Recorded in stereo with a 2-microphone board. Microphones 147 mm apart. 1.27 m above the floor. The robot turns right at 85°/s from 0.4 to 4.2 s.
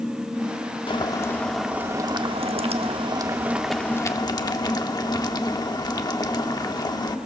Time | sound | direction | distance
0.9 | boiling | 120° left | 1.0 m